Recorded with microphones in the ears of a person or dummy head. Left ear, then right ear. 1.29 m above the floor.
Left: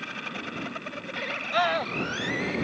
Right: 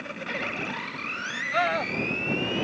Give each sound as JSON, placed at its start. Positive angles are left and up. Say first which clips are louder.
{"t": 1.5, "sound": "a scream", "louder": "even", "side_deg": 10}